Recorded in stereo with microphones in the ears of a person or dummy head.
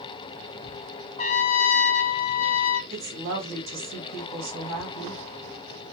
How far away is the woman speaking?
About 1.9 m.